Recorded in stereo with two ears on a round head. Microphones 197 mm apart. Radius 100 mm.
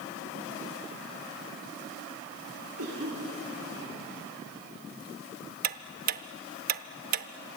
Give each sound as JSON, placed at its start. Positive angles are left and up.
{"t": 2.8, "sound": "a cough", "side_deg": -70, "distance_m": 5.0}
{"t": 5.6, "sound": "ticking", "side_deg": -40, "distance_m": 0.8}